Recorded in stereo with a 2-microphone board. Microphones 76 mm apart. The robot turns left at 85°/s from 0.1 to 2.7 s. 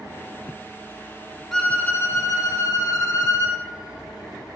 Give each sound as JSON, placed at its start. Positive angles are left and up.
{"t": 1.5, "sound": "a violin", "azimuth_deg": 175, "distance_m": 0.5}